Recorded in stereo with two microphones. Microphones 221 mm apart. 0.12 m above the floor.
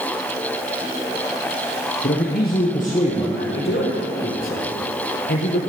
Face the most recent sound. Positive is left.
turn(degrees=70)  # may be behind; listen again after turning